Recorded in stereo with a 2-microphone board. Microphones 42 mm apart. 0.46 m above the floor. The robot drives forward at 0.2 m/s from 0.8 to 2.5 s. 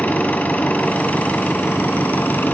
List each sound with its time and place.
0.0 s an engine running: 45° left (ahead or behind), 1.6 m; by 2.5 s 55° left (ahead or behind), 1.4 m